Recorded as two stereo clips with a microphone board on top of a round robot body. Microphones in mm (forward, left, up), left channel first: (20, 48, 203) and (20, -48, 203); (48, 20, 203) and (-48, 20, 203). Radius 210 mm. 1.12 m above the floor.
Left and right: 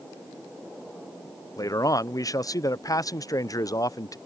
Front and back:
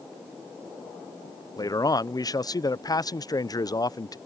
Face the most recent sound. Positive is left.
turn(degrees=45)